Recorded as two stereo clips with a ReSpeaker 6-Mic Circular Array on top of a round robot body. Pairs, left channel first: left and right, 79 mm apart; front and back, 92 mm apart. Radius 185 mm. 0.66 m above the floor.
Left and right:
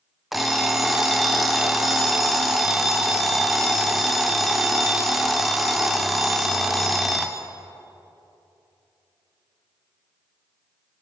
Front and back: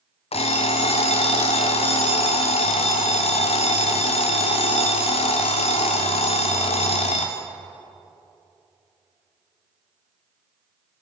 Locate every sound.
0.3 s an alarm clock: straight ahead, 0.6 m